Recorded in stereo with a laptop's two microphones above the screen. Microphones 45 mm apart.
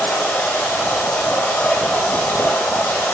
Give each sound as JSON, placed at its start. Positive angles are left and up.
{"t": 0.0, "sound": "running water", "side_deg": 50, "distance_m": 5.5}